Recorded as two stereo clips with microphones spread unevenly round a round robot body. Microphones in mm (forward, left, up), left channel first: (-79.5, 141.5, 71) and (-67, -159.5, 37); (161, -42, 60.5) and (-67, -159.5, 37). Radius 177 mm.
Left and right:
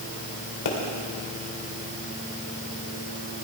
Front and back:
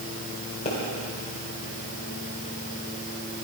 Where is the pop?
100° left, 3 m.